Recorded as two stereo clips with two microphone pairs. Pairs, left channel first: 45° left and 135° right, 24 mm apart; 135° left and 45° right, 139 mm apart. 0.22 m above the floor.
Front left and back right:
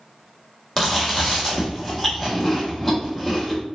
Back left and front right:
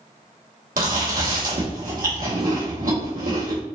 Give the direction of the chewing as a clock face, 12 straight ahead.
1 o'clock.